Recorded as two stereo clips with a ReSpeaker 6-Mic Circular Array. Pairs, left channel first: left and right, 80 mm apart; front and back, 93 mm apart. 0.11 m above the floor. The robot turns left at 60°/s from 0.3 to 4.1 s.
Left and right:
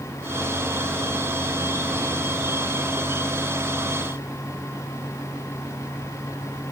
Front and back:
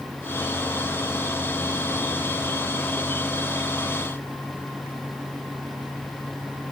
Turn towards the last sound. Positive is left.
No sound to turn to.